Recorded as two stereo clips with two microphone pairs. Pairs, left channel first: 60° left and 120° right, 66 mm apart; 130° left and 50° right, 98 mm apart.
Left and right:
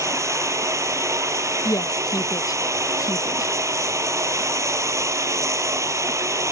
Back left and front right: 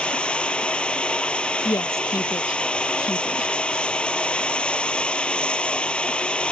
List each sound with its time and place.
0.0 s running water: 150° right
1.6 s a woman speaking: 75° left